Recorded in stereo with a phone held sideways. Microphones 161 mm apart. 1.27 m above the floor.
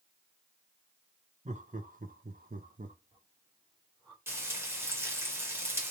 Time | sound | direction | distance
1.4 | laughter | 50° right (ahead or behind) | 1.0 m
4.3 | frying | 15° right (ahead or behind) | 1.3 m